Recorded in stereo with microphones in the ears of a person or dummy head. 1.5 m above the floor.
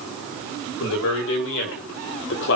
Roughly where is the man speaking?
Left.